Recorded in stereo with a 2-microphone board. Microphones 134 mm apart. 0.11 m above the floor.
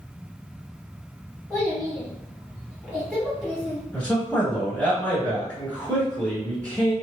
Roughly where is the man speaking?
Centre.